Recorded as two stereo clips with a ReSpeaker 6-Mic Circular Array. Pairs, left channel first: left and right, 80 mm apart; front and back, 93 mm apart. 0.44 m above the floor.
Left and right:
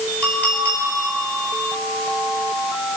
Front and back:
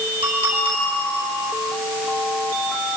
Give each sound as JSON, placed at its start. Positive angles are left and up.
{"t": 0.2, "sound": "a clink", "azimuth_deg": 160, "distance_m": 4.5}